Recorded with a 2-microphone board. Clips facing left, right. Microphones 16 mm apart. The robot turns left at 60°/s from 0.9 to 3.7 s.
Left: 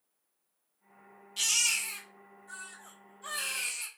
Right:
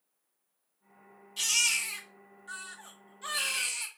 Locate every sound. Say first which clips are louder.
1.4 s a baby crying: right 1 dB; 20° left, 1.2 m; by 3.9 s 120° right, 1.2 m